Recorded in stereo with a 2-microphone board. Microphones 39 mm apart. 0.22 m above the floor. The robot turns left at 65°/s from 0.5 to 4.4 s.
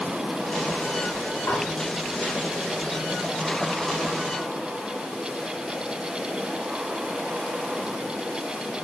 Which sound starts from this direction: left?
Dishes clattering, at 1.5 s.